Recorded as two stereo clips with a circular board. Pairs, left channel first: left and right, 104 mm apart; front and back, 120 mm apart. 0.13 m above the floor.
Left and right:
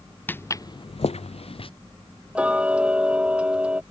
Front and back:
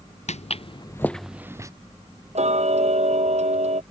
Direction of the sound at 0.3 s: 15° left.